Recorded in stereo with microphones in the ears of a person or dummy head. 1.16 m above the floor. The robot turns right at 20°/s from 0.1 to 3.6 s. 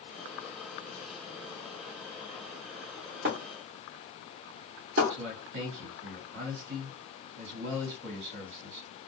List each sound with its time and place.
3.2 s breaking glass: 45° right (ahead or behind), 0.9 m
5.1 s a man speaking: 65° right (ahead or behind), 1.6 m